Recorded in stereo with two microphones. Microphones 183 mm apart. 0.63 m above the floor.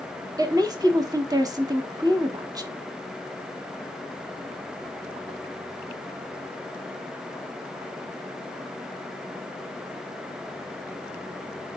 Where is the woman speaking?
20° right (ahead or behind), 1.0 m.